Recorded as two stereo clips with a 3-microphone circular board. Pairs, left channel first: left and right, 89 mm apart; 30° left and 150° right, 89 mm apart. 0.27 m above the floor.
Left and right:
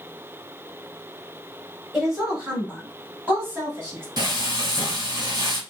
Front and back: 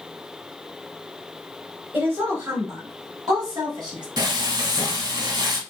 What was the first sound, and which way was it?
A woman speaking, 170° right.